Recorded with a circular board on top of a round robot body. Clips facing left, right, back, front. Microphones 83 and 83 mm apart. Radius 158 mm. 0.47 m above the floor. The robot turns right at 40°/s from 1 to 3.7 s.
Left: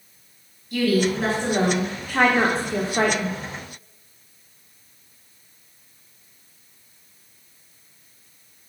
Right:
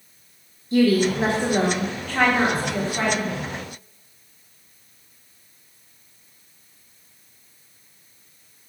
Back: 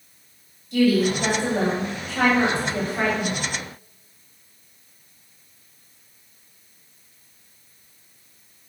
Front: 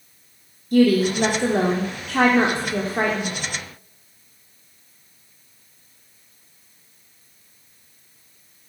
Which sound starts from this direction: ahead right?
A woman speaking, at 0.7 s.